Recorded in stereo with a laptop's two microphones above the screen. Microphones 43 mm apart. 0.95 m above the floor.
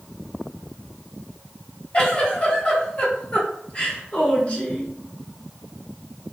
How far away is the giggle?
About 1.5 m.